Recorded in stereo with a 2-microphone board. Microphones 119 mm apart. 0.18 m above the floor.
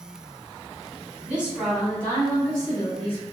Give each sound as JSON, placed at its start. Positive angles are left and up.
{"t": 1.3, "sound": "a woman speaking", "side_deg": -15, "distance_m": 1.2}